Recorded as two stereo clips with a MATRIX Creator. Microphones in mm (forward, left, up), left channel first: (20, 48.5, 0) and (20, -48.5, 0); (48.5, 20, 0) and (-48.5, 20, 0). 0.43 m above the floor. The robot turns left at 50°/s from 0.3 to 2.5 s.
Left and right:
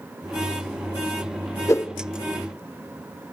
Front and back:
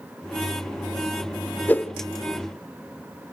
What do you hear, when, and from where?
1.7 s a whoosh: 60° left, 0.6 m; by 1.9 s 50° left, 0.6 m